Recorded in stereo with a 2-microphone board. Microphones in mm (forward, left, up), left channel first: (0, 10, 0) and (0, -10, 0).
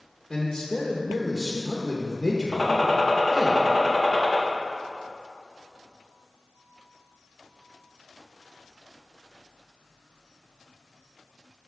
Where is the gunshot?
30° left (ahead or behind), 0.8 m.